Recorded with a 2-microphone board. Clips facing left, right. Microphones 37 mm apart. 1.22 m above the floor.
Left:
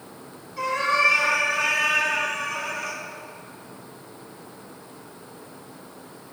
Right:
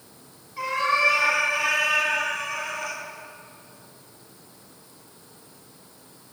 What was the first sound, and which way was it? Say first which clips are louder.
A cat meowing: left 1 dB; 10° right (ahead or behind).